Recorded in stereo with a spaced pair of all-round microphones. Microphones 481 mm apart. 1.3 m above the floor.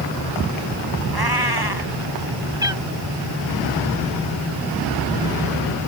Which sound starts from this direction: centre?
A cat meowing, at 2.6 s.